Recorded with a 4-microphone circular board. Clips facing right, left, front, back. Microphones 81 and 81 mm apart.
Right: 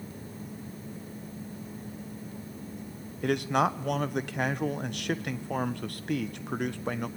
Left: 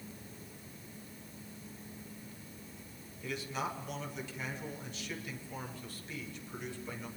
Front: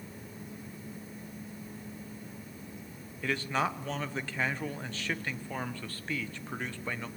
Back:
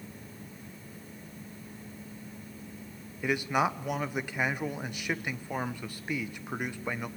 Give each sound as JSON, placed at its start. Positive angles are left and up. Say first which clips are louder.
{"t": 3.2, "sound": "a man speaking", "louder": "right 12 dB, back 3 dB", "azimuth_deg": -105, "distance_m": 1.1}